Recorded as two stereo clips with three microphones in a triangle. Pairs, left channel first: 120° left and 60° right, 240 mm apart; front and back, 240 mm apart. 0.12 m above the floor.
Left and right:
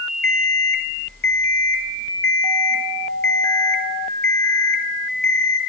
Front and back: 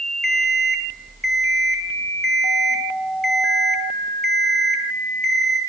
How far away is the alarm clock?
About 1.4 m.